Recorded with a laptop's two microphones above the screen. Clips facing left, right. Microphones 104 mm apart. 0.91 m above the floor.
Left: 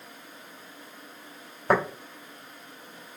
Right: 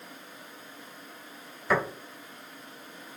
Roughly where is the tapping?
Left.